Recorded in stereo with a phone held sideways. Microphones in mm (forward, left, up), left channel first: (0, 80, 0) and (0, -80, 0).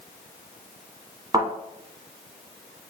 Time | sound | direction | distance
1.3 | a thud | 30° right (ahead or behind) | 1.0 m